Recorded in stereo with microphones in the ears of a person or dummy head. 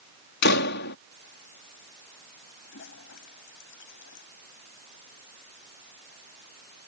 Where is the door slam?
60° left (ahead or behind).